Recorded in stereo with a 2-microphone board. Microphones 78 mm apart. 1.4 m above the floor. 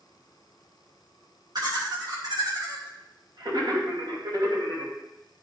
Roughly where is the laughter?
Right.